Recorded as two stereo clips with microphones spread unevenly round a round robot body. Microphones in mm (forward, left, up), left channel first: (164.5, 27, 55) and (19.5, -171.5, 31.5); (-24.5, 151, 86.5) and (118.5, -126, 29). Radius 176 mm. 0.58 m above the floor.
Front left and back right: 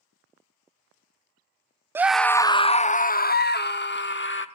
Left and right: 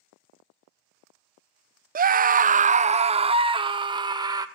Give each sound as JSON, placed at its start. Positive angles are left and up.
{"t": 1.9, "sound": "a scream", "azimuth_deg": -60, "distance_m": 0.6}